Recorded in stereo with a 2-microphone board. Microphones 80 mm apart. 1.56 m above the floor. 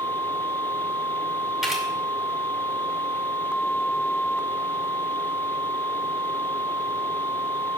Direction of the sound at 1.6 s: 5° right (ahead or behind).